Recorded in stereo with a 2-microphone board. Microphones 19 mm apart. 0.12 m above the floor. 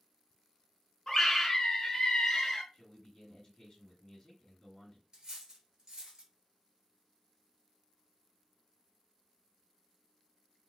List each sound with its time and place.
1.1 s a scream: 20° left (ahead or behind), 1.1 m
2.7 s a man speaking: 35° left (ahead or behind), 1.9 m
5.1 s cutlery clinking: 35° right (ahead or behind), 1.1 m